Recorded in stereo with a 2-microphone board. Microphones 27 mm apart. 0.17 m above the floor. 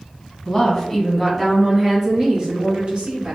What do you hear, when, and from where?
0.5 s a woman speaking: 15° left (ahead or behind), 1.5 m; by 3.4 s 50° right (ahead or behind), 2 m